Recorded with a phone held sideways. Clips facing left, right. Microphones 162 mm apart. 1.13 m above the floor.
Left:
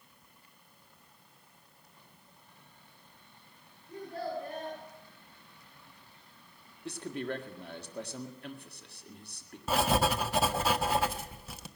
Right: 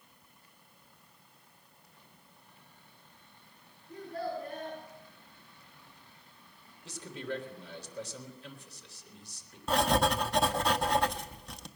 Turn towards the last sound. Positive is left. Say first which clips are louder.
# right 1 dB
turn(degrees=5)  # may be behind; listen again after turning